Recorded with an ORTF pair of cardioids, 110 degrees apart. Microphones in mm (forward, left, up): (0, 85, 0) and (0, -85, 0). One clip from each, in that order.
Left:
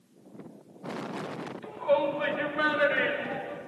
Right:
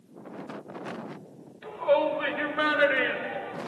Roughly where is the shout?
Ahead.